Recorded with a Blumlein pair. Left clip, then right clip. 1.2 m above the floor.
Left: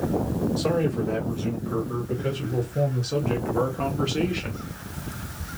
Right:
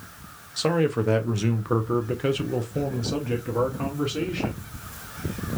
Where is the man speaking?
65° right, 1.5 m; by 4.7 s 20° left, 1.9 m.